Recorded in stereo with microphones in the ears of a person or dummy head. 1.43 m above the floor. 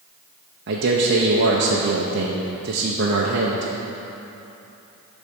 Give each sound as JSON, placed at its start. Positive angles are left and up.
{"t": 0.7, "sound": "a man speaking", "side_deg": -50, "distance_m": 0.8}